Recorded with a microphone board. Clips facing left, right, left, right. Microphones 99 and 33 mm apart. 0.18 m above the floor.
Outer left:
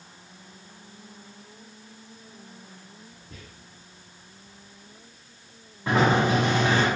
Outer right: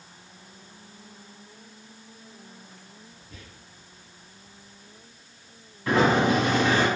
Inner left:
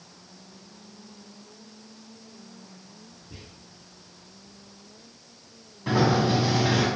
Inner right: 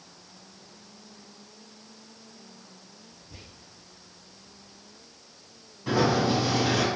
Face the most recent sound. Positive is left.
turn(degrees=20)  # may be behind; listen again after turning